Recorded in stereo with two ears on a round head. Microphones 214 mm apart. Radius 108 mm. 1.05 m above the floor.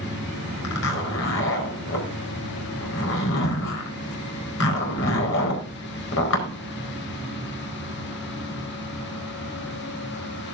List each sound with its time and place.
0.6 s a zipper: 55° left (ahead or behind), 4 m